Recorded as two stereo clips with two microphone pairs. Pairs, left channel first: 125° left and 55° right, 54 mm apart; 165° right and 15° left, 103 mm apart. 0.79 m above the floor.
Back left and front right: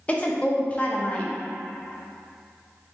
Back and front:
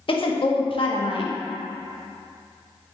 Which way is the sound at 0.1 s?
175° right.